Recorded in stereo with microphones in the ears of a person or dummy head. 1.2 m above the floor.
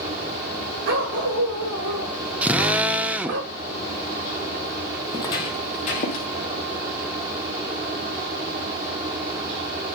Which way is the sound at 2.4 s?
5° right (ahead or behind).